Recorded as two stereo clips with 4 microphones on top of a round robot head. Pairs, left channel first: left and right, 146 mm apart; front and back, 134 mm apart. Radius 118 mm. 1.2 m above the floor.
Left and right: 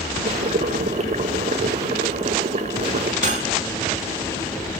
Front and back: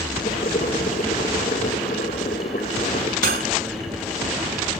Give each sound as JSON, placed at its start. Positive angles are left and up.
{"t": 0.2, "sound": "boiling", "azimuth_deg": -50, "distance_m": 0.9}
{"t": 3.2, "sound": "cutlery clinking", "azimuth_deg": -145, "distance_m": 1.3}